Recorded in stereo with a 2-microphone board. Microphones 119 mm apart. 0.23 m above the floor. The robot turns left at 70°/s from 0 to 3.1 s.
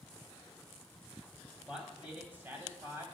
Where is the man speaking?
5° right (ahead or behind), 1.2 m; by 3.0 s 20° right (ahead or behind), 1.2 m.